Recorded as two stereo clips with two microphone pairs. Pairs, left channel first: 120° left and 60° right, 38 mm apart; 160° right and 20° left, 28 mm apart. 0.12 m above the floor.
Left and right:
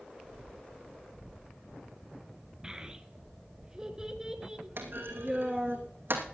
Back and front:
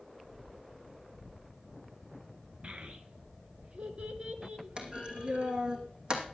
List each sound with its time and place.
2.6 s a child speaking: 5° left, 1.4 m
4.8 s a clunk: 35° right, 2.5 m